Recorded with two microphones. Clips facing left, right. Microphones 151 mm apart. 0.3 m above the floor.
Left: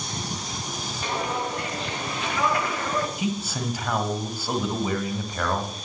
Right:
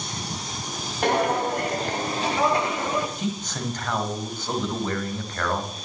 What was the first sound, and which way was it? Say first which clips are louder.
Footsteps: right 7 dB; 60° right (ahead or behind).